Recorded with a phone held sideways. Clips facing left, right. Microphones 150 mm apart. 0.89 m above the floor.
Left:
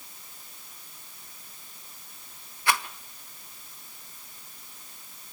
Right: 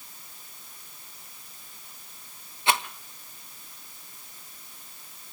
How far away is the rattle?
About 1.2 m.